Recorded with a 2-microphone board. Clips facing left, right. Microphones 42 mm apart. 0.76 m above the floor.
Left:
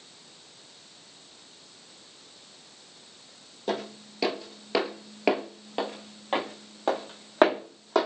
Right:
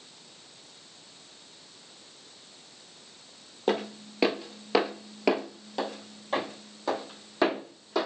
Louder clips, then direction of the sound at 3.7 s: Right 3 dB; 45° right (ahead or behind).